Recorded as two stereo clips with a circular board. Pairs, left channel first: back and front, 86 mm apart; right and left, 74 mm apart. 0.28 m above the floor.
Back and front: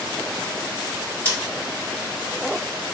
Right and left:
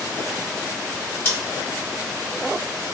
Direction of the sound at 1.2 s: 125° right.